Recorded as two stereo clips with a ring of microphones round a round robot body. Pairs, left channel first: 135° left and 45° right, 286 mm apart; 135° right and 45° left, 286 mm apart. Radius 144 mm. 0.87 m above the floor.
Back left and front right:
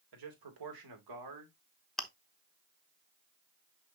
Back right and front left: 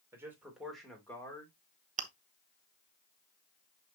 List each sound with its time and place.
0.1 s a man speaking: 35° right, 3 m; by 1.5 s 60° right, 2.5 m
2.0 s chewing: 50° left, 1.0 m